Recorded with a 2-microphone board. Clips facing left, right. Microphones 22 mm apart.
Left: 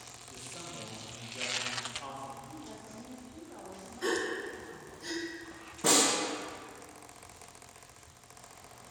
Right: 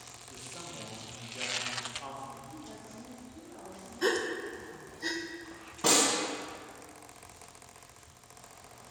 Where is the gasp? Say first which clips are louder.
Right 2 dB; 55° right (ahead or behind), 0.6 m.